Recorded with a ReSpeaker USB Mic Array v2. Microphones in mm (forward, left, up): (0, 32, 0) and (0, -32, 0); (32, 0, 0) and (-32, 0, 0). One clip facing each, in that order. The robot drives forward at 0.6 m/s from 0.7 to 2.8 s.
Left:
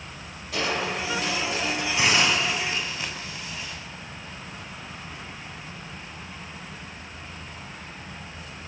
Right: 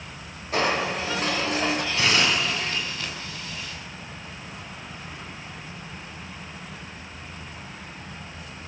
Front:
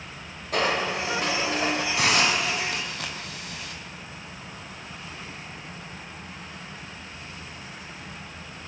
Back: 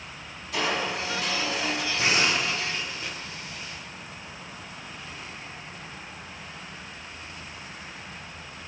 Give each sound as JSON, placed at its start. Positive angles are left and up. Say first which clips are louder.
{"t": 0.5, "sound": "crushing", "louder": "right 3 dB, front 3 dB", "azimuth_deg": -40, "distance_m": 4.5}
{"t": 2.0, "sound": "a hiss", "louder": "left 2 dB, front 1 dB", "azimuth_deg": 20, "distance_m": 5.5}